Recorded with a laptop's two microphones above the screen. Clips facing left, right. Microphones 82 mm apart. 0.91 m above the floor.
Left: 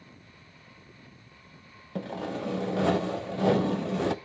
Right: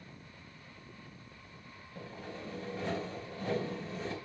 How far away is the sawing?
About 0.7 m.